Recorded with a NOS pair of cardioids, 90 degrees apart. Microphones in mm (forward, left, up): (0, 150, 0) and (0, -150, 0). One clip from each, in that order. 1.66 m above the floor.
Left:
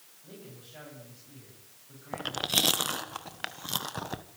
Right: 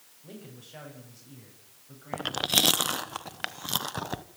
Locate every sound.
0.2 s a man speaking: 45° right, 9.5 m
2.1 s chewing: 20° right, 1.3 m